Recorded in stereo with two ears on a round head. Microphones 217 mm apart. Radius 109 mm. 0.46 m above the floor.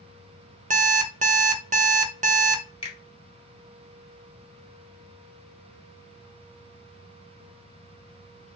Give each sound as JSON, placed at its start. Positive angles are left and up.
{"t": 0.7, "sound": "an alarm clock", "side_deg": -30, "distance_m": 0.6}
{"t": 2.8, "sound": "a finger snap", "side_deg": 25, "distance_m": 1.6}